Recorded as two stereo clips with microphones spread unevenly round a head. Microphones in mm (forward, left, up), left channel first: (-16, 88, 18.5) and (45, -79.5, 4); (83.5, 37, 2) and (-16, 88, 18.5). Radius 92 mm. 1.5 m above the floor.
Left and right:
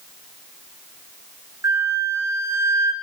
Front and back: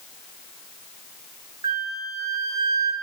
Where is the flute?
145° right, 1.1 m.